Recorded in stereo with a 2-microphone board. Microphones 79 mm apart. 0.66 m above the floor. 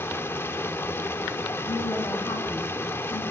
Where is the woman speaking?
65° left (ahead or behind), 7.5 m.